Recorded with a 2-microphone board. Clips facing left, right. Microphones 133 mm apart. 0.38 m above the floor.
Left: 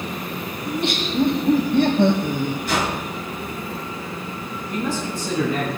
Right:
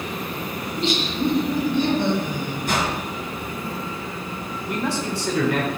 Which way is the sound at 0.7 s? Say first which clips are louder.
Left 1 dB; 55° left (ahead or behind).